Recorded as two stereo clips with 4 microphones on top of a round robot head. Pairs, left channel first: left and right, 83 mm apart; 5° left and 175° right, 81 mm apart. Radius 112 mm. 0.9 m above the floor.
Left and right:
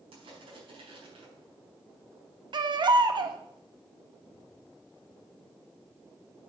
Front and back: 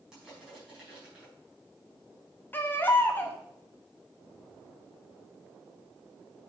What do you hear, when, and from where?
0.1 s crushing: 95° right, 5 m
2.5 s a baby crying: 65° right, 1.1 m